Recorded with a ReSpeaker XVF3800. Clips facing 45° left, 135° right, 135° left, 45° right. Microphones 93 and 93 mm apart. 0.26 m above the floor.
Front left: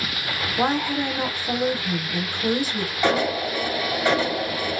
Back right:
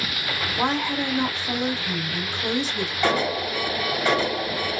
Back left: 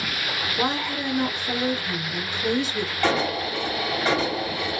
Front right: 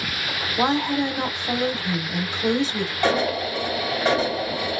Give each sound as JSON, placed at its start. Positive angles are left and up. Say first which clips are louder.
{"t": 0.6, "sound": "a woman speaking", "louder": "front left 2 dB, front right 6 dB", "azimuth_deg": -30, "distance_m": 1.0}
{"t": 3.0, "sound": "an alarm", "louder": "front left 2 dB, front right 2 dB", "azimuth_deg": -10, "distance_m": 2.0}